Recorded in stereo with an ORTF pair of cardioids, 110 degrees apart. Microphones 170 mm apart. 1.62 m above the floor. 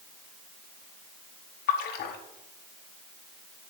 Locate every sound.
1.7 s a splash: 70° left, 1.3 m